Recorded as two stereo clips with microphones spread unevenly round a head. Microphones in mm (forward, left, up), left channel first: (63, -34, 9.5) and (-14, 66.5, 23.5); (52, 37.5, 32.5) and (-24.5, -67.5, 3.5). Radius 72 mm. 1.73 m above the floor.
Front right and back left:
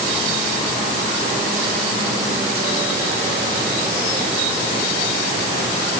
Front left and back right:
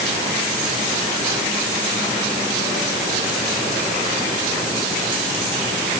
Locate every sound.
Only background noise.